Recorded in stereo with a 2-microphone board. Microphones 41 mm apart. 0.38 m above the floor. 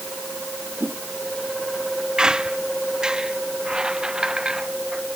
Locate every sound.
0.8 s a whoosh: 75° right (ahead or behind)
2.2 s a squeak: 20° right (ahead or behind)